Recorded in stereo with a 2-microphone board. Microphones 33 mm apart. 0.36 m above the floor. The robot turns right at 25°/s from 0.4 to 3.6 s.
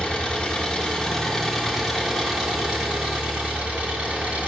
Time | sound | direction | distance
0.0 | an engine running | 145° left | 2.5 m